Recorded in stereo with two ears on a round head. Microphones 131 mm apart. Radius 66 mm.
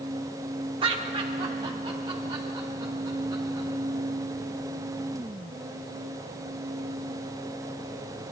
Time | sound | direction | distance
0.8 | laughter | 35° right (ahead or behind) | 0.8 m